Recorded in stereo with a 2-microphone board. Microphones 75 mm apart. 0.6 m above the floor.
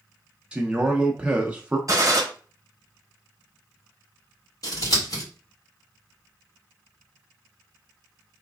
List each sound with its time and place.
0.5 s a man speaking: 15° right (ahead or behind), 0.6 m
1.9 s a gunshot: 50° right (ahead or behind), 0.9 m
4.6 s scissors: 55° left (ahead or behind), 2 m